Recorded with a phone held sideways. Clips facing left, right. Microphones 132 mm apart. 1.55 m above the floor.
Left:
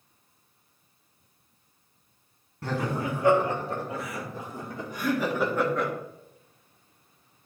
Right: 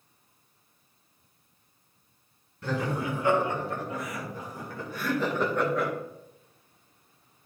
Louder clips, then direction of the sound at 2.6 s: Even; 40° left (ahead or behind).